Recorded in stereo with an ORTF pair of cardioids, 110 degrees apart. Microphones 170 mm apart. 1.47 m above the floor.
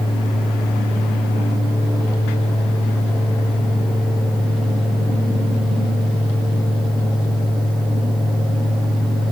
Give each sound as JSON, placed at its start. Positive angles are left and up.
{"t": 0.0, "sound": "a fan", "azimuth_deg": 5, "distance_m": 1.5}